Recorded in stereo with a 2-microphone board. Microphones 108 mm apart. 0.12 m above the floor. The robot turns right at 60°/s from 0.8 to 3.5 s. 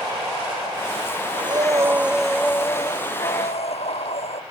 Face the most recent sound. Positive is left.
turn(degrees=75)